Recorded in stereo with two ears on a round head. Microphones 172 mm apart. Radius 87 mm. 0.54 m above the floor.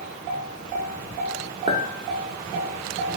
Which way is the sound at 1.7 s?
25° right (ahead or behind).